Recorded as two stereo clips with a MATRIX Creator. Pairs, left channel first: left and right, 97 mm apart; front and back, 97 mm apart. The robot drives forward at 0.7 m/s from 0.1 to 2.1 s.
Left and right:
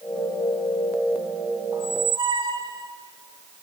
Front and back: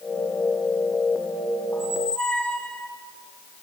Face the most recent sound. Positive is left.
turn(degrees=-75)